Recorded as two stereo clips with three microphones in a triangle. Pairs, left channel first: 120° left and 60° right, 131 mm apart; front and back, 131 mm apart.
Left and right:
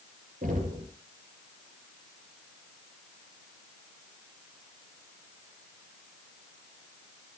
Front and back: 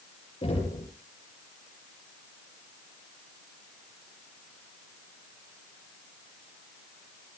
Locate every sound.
0.4 s knocking: 50° right, 7 m